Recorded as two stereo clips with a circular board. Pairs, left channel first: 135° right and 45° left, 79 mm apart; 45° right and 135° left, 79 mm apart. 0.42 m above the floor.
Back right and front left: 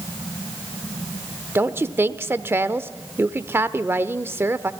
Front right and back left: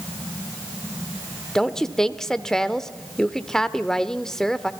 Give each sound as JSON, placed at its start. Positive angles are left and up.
{"t": 1.6, "sound": "a woman speaking", "azimuth_deg": 35, "distance_m": 0.8}